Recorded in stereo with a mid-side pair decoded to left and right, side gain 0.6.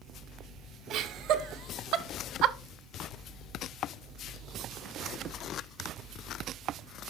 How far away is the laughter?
About 1.8 m.